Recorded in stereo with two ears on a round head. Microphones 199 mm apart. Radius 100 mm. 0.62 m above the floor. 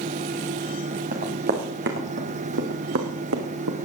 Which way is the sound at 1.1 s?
35° right (ahead or behind).